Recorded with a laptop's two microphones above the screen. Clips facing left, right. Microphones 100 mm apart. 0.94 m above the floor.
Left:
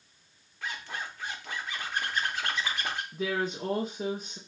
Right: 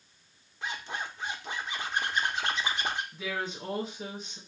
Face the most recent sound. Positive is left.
turn(degrees=45)  # may be behind; listen again after turning